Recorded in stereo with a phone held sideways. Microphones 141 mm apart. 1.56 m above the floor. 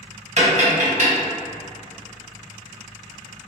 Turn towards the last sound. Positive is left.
turn(degrees=-55)  # may be behind; listen again after turning